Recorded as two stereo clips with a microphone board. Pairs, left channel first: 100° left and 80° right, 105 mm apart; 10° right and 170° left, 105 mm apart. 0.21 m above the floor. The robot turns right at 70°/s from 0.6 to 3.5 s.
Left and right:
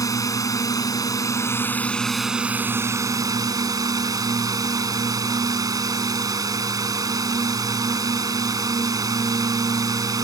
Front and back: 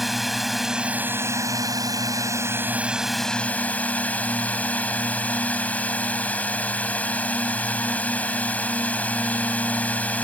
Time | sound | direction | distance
0.0 | a drone | 80° left | ?